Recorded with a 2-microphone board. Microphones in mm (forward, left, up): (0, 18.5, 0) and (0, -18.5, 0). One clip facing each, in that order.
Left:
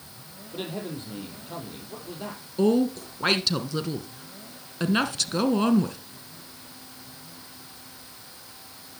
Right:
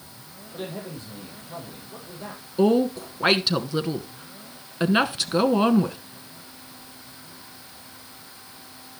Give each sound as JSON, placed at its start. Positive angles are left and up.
{"t": 0.5, "sound": "a man speaking", "side_deg": 40, "distance_m": 5.0}
{"t": 2.6, "sound": "a woman speaking", "side_deg": -15, "distance_m": 1.2}